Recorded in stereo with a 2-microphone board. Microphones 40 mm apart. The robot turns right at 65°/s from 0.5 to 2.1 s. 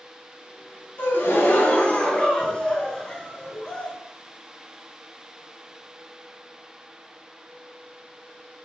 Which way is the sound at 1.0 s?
85° left.